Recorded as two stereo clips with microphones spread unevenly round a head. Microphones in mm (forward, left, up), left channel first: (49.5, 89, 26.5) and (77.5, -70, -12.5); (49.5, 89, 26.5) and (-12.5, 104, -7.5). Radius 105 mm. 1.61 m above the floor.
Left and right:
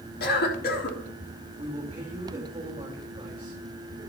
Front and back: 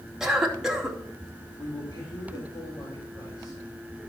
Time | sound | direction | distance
0.2 | a cough | 80° left | 3 m
1.6 | a man speaking | 20° right | 3 m